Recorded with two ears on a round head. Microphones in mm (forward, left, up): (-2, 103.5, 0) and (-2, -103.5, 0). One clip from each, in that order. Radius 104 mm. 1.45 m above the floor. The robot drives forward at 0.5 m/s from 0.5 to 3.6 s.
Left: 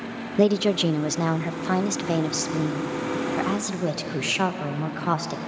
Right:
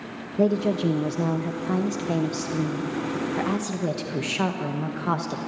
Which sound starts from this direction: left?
A woman speaking, at 0.4 s.